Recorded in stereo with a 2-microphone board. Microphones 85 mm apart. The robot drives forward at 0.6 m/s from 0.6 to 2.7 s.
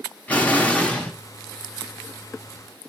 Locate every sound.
0.3 s an explosion: 15° left (ahead or behind), 0.8 m; by 1.1 s 10° left (ahead or behind), 1.1 m